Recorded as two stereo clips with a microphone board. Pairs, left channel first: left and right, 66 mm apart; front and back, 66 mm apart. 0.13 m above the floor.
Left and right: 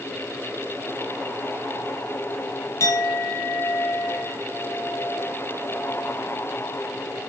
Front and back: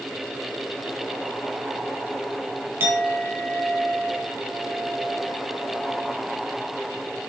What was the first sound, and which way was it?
A clink, 130° left.